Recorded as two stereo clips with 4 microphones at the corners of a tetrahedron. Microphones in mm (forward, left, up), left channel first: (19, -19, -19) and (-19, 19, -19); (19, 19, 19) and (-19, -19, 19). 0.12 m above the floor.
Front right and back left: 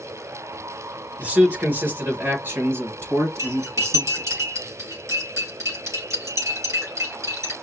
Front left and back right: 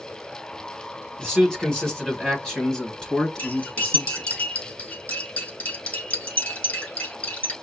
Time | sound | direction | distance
1.2 | a man speaking | 115° left | 1.5 m
3.4 | cutlery clinking | 105° left | 3.5 m